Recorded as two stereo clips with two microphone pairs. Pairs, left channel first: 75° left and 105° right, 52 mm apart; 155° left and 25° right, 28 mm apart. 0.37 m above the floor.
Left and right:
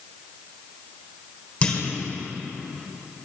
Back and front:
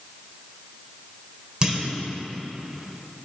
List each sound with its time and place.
1.6 s a clunk: 25° left, 1.2 m